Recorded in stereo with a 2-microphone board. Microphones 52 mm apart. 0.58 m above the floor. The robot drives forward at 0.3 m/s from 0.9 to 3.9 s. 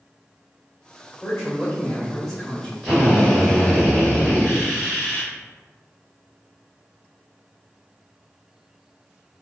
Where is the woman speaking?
10° left (ahead or behind), 1.6 m.